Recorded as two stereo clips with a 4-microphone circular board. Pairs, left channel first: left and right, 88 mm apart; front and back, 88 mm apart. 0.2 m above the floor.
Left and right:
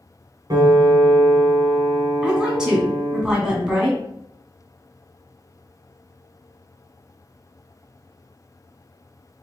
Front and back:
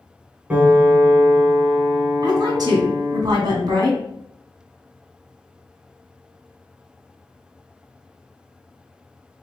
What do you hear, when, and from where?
0.5 s a piano: 110° right, 1.7 m
2.2 s a woman speaking: 170° right, 2.0 m